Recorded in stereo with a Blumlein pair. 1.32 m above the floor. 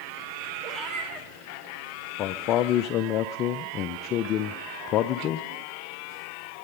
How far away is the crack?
No crack in this recording.